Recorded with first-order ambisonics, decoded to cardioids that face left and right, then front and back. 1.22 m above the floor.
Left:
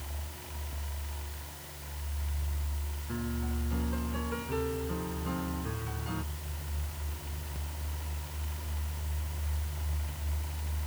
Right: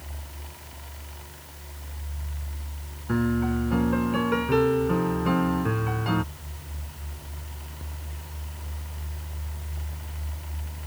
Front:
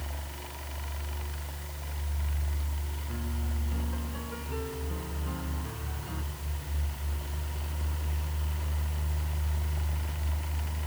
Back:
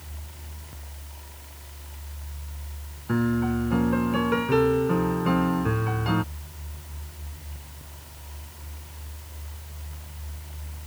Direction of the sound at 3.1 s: 140° right.